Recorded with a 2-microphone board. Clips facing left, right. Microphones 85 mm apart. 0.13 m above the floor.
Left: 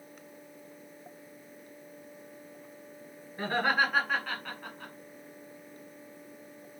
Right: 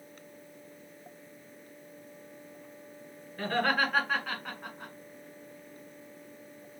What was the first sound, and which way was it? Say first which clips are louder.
Laughter: even; 15° left (ahead or behind).